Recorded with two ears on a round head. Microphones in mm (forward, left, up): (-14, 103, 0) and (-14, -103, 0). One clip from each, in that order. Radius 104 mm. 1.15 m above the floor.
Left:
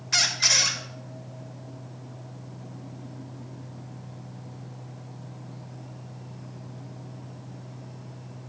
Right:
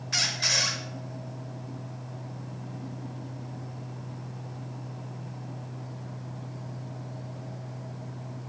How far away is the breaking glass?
I don't hear breaking glass.